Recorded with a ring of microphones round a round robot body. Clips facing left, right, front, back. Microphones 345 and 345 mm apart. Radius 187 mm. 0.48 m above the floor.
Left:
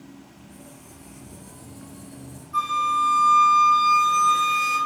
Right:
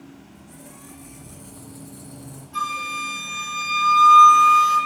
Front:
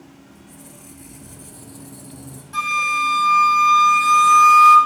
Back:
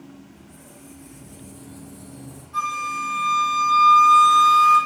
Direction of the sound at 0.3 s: 45° right.